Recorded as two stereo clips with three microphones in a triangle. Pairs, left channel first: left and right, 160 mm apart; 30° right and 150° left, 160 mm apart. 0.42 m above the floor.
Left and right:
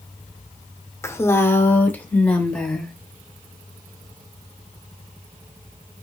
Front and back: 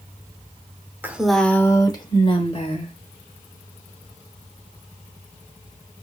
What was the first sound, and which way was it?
A woman speaking, 105° left.